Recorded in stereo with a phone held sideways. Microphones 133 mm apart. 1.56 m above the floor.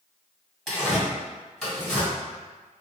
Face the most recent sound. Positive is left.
turn(degrees=5)  # may be behind; listen again after turning